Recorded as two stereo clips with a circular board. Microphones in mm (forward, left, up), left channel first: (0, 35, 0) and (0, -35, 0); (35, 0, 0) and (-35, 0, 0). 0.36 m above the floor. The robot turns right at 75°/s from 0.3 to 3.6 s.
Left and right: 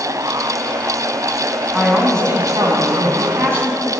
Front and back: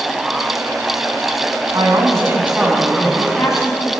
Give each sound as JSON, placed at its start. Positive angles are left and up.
{"t": 1.7, "sound": "a woman speaking", "azimuth_deg": -170, "distance_m": 3.5}